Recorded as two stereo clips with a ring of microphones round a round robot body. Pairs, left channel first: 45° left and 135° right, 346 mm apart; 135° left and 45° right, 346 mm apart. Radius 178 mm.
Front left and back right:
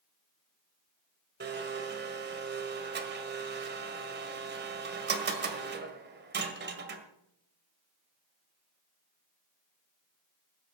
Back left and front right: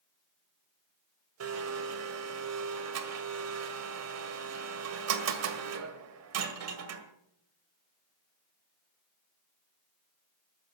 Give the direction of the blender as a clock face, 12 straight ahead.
3 o'clock.